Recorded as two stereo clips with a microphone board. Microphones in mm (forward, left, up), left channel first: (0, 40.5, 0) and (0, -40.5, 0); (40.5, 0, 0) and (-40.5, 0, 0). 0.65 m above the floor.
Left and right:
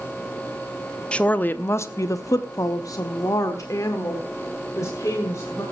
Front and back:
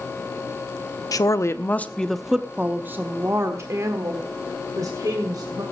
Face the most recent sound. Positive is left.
turn(degrees=140)